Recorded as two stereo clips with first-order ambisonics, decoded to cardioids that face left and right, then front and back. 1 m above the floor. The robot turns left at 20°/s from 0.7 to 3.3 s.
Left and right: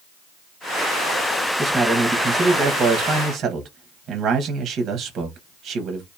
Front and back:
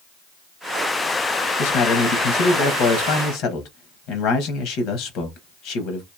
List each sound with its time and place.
1.6 s a man speaking: 5° left, 0.8 m; by 6.1 s 30° right, 0.8 m